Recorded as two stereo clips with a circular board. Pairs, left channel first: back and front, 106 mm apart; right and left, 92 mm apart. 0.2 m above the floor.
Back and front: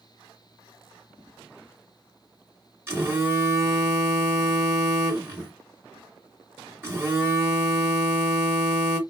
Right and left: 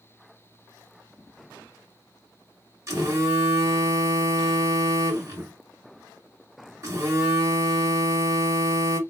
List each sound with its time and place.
2.9 s a phone buzzing: 55° left, 2 m